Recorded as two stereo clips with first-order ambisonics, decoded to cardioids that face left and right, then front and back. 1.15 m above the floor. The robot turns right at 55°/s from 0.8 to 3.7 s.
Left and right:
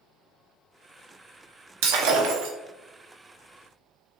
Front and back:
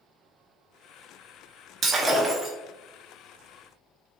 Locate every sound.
1.8 s breaking glass: 115° right, 0.9 m; by 2.5 s 75° right, 0.9 m